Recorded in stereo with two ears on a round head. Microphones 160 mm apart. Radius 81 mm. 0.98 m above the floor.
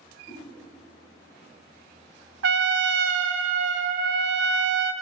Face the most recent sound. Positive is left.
turn(degrees=-80)